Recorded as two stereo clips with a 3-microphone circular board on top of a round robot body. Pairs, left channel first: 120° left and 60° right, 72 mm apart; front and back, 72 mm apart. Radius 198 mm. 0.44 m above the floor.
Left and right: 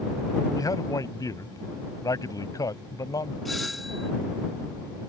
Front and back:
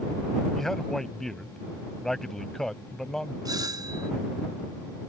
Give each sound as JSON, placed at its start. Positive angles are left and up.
{"t": 0.6, "sound": "a man speaking", "azimuth_deg": 85}
{"t": 3.5, "sound": "a doorbell", "azimuth_deg": -150}